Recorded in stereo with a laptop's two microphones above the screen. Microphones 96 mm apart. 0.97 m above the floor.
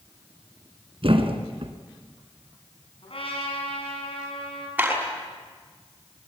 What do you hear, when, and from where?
1.0 s a thud: 65° right (ahead or behind), 2.0 m
3.0 s a trumpet: 65° left (ahead or behind), 7 m
4.8 s a clap: 15° right (ahead or behind), 6 m